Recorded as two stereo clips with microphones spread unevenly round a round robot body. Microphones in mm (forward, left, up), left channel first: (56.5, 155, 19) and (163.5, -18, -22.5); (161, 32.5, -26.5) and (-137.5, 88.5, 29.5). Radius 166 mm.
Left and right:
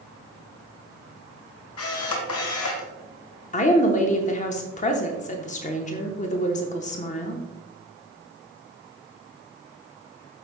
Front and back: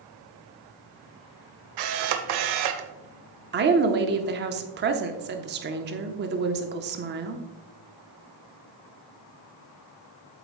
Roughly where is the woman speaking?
Behind left.